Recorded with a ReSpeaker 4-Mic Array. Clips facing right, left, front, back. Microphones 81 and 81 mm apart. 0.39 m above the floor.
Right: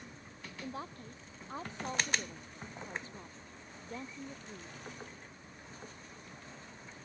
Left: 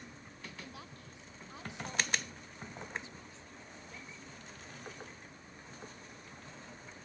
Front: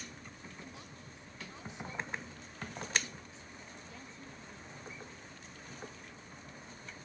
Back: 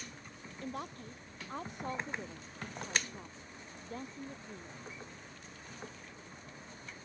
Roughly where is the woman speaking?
Behind right.